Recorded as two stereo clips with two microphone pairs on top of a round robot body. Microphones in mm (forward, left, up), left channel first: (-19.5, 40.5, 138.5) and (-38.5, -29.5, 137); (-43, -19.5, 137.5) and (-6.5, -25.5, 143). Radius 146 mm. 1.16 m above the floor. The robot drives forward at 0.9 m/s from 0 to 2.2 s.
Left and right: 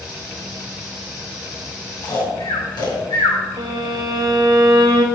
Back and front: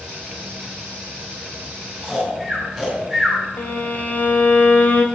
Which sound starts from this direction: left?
Snoring, at 2.0 s.